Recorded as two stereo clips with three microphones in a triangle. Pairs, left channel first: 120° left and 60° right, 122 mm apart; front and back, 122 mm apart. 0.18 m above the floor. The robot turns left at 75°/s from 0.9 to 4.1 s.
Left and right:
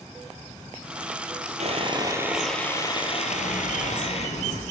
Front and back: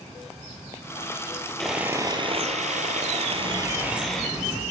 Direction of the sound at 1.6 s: 85° right.